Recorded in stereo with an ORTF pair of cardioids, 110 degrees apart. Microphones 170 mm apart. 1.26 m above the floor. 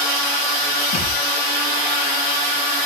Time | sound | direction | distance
0.9 | a thud | 55° left | 4 m